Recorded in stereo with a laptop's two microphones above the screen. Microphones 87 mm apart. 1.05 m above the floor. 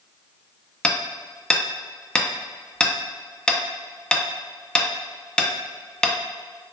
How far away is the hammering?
About 1.0 m.